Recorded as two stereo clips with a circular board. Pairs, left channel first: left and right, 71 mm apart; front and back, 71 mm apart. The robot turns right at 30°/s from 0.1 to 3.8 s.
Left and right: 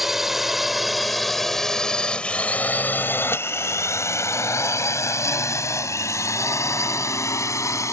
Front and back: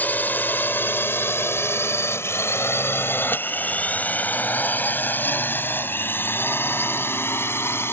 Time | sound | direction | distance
0.0 | a drone | 10° right | ?